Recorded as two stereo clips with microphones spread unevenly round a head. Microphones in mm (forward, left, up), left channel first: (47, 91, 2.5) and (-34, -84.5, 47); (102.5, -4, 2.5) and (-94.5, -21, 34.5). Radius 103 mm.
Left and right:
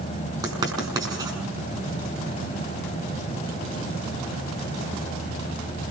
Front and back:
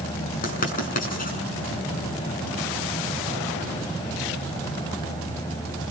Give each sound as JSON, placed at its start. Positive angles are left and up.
{"t": 0.4, "sound": "writing", "azimuth_deg": -45, "distance_m": 6.5}